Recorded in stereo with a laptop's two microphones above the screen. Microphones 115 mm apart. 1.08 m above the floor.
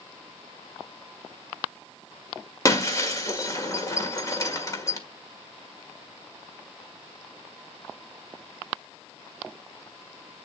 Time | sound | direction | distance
2.6 | breaking glass | 30° left (ahead or behind) | 1.6 m